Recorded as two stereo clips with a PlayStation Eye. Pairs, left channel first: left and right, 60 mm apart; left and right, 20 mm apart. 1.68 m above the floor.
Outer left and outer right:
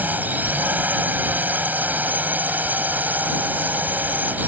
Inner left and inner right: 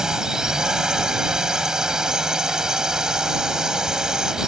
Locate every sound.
0.0 s a drone: 30° right (ahead or behind)